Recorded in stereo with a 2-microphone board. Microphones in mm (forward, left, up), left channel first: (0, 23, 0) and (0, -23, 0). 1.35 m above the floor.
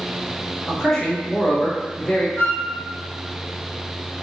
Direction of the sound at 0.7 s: 10° left (ahead or behind).